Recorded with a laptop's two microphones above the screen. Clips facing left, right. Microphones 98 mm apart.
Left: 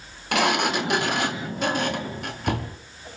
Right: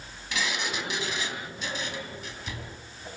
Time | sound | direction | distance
0.3 | a sliding door | 60° left (ahead or behind) | 1.9 m